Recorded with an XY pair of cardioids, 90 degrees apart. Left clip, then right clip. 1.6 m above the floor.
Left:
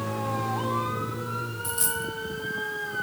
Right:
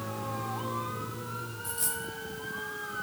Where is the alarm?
No alarm in this recording.